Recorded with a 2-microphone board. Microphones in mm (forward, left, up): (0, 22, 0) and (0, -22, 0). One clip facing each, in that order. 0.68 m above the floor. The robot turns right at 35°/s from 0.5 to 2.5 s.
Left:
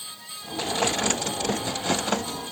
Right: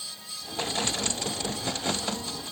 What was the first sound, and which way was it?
Only background noise.